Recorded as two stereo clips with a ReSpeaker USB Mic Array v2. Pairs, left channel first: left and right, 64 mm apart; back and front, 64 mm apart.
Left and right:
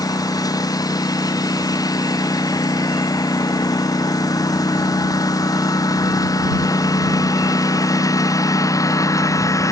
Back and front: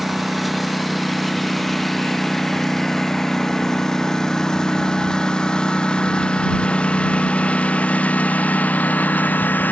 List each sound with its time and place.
0.0 s a lawn mower: 90° left; by 9.7 s 120° left